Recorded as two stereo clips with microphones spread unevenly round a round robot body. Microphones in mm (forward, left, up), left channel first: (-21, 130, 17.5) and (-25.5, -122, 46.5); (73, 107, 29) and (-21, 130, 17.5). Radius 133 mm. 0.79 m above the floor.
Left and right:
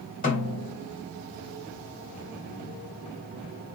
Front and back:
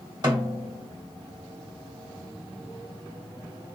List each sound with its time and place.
0.2 s a snare drum: 140° left, 2 m